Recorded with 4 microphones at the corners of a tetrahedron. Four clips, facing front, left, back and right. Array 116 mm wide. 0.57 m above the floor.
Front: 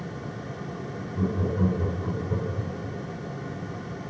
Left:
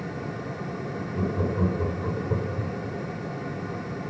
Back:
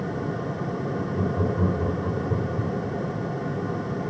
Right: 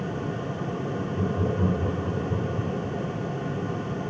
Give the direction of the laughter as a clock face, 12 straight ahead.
7 o'clock.